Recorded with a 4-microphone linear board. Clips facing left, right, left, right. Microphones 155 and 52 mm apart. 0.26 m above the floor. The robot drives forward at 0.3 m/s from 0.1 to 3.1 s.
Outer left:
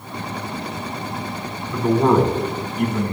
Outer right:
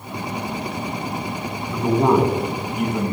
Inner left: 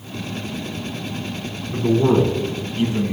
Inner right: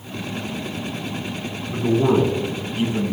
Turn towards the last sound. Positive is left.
turn(degrees=-10)  # may be behind; listen again after turning